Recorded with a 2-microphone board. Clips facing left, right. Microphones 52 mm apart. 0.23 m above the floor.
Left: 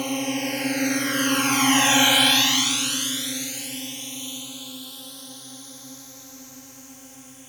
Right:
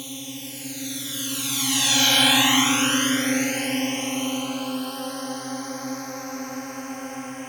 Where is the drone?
60° left (ahead or behind); by 7.5 s 55° right (ahead or behind).